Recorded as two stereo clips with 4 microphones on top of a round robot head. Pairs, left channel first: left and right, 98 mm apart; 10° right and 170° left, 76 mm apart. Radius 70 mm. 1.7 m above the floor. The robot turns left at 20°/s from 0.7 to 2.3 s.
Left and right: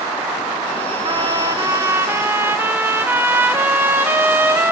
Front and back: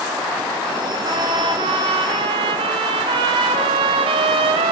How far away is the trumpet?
About 0.7 m.